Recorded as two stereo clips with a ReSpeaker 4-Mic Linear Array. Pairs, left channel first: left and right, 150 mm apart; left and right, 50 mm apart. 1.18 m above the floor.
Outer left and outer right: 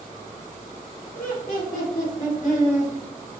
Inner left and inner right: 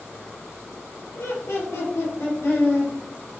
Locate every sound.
1.1 s laughter: 80° left, 1.5 m; by 2.9 s 65° left (ahead or behind), 1.4 m